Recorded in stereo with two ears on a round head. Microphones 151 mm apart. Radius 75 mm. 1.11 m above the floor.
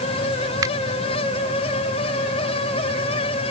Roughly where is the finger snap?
Right.